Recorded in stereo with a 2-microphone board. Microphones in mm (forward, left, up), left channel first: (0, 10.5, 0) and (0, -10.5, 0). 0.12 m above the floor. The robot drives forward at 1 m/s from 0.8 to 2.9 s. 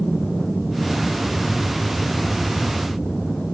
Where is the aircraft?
25° left (ahead or behind).